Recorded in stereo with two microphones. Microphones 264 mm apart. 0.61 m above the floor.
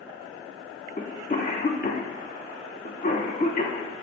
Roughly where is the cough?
Left.